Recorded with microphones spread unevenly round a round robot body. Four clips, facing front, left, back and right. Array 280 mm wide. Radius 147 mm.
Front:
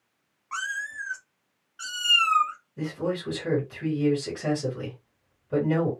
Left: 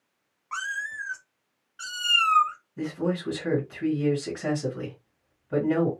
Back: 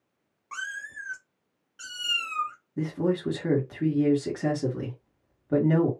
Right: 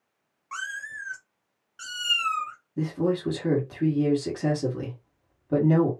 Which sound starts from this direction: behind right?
A man speaking, at 2.8 s.